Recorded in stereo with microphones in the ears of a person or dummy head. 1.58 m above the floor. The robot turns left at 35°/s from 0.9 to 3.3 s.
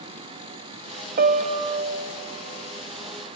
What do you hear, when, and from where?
1.2 s a piano: 135° right, 0.9 m; by 2.2 s 170° right, 0.9 m